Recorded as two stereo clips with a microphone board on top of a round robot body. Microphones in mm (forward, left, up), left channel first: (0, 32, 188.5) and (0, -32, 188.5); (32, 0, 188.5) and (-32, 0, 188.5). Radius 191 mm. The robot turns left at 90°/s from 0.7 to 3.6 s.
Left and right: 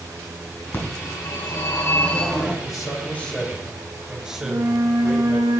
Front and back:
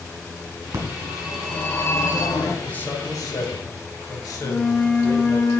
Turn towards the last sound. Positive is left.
turn(degrees=-60)